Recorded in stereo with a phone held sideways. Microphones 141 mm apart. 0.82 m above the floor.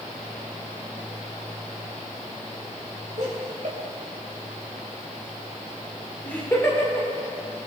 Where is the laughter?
65° right (ahead or behind), 2.5 m; by 7.1 s 25° left (ahead or behind), 2.5 m.